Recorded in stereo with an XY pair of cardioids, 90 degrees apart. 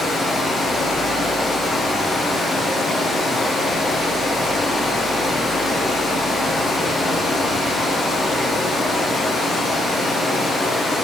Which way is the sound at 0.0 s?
60° left.